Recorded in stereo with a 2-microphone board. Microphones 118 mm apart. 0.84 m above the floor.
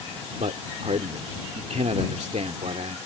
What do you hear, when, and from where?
0.4 s a man speaking: 75° right (ahead or behind)